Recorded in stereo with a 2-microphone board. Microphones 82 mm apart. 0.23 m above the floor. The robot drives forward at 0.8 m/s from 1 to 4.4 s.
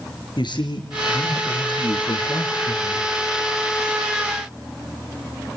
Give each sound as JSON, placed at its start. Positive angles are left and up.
{"t": 0.4, "sound": "a man speaking", "side_deg": 70, "distance_m": 4.0}